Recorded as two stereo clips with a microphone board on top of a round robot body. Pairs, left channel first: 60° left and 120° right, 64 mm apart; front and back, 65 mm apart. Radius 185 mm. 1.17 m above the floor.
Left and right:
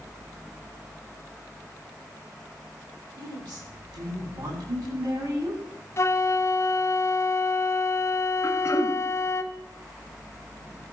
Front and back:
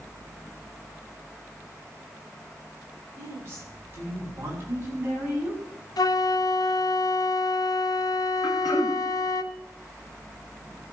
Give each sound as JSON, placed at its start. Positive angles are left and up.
{"t": 3.2, "sound": "a woman speaking", "azimuth_deg": -125, "distance_m": 8.5}
{"t": 6.0, "sound": "a flute", "azimuth_deg": 10, "distance_m": 1.2}
{"t": 8.4, "sound": "throat clearing", "azimuth_deg": 5, "distance_m": 1.6}